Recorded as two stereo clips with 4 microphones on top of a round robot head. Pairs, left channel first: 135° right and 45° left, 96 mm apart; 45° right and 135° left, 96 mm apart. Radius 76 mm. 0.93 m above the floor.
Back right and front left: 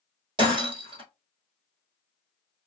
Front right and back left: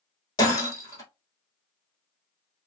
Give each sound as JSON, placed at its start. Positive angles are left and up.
{"t": 0.4, "sound": "breaking glass", "azimuth_deg": 5, "distance_m": 1.3}